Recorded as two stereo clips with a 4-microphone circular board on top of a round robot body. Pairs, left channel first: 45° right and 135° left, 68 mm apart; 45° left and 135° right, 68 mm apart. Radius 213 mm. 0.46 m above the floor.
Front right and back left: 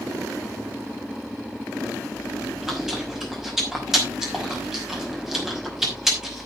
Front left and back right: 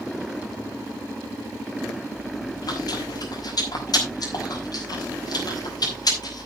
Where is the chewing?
50° left, 5.5 m.